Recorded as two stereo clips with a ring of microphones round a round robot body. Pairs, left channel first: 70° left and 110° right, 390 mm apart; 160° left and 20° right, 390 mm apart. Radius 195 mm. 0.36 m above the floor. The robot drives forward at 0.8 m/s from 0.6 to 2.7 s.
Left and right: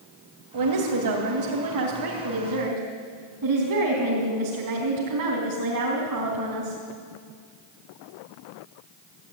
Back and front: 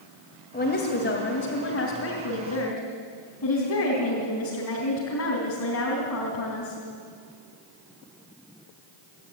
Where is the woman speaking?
140° right, 2.5 m; by 6.8 s 155° right, 4 m.